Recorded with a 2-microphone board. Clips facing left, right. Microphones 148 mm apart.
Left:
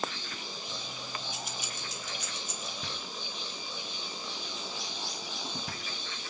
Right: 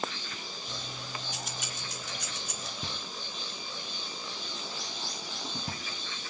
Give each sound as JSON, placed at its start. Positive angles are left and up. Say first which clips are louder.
{"t": 0.7, "sound": "keys jangling", "louder": "right 2 dB", "side_deg": -75, "distance_m": 1.7}
{"t": 2.8, "sound": "knocking", "louder": "even", "side_deg": -25, "distance_m": 1.3}